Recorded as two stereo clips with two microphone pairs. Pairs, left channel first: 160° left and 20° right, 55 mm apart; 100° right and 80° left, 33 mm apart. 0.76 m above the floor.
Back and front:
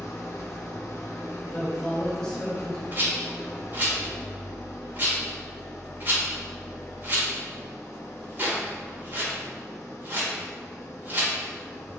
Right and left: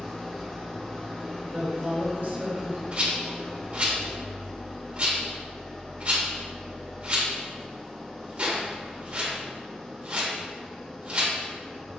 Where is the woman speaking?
80° left, 1.4 m.